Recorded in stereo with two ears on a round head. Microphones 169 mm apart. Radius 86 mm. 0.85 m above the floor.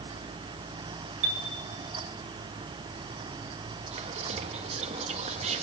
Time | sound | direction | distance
1.2 | a chime | 60° right (ahead or behind) | 1.3 m
3.9 | whispering | 35° right (ahead or behind) | 0.8 m